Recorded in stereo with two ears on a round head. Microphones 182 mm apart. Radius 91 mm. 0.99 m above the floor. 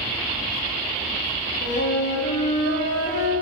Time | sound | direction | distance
1.6 | a flute | 60° left (ahead or behind) | 1.7 m